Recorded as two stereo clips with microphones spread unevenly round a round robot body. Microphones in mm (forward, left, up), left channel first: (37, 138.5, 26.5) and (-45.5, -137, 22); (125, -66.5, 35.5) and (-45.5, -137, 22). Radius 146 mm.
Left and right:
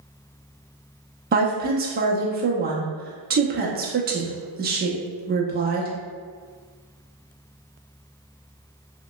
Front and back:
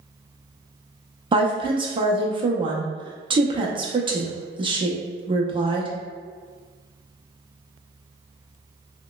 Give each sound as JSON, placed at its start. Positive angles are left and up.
{"t": 1.3, "sound": "a woman speaking", "azimuth_deg": -130, "distance_m": 0.7}